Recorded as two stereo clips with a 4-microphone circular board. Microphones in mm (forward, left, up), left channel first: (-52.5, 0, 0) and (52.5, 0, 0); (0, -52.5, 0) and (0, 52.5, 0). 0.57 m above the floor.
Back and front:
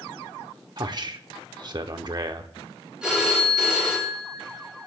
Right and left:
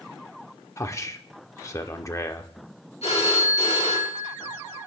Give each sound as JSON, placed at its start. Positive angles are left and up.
{"t": 0.8, "sound": "a man speaking", "azimuth_deg": -35, "distance_m": 1.0}
{"t": 3.0, "sound": "a phone ringing", "azimuth_deg": -80, "distance_m": 5.5}